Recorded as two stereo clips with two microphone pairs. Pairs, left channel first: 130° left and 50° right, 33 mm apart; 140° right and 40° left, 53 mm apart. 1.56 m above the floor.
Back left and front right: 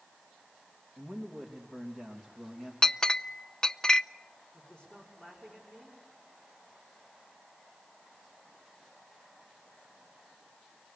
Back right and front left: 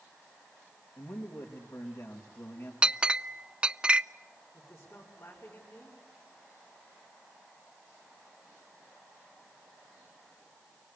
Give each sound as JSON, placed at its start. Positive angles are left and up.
{"t": 1.0, "sound": "a man speaking", "azimuth_deg": -145, "distance_m": 2.5}
{"t": 2.8, "sound": "a clink", "azimuth_deg": 90, "distance_m": 0.6}
{"t": 4.5, "sound": "a man speaking", "azimuth_deg": -165, "distance_m": 5.0}